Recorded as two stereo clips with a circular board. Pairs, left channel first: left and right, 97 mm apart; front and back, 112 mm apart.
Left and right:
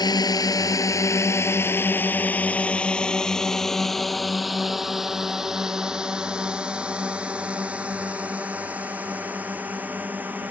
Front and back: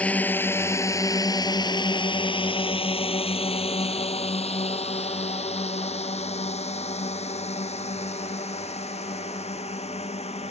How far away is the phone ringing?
I don't hear a phone ringing.